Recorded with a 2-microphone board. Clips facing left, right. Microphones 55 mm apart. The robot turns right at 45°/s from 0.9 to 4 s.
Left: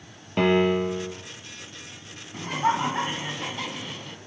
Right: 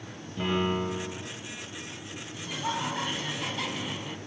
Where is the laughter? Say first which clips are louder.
Left 9 dB; 115° left, 2 m; by 4.2 s 170° right, 2 m.